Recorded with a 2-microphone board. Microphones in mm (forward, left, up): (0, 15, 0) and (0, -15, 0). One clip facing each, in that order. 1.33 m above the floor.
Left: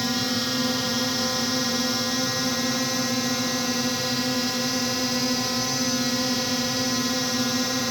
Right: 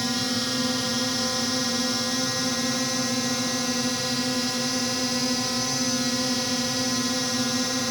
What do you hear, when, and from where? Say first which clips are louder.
0.0 s a drone: left 1 dB; 5° left (ahead or behind)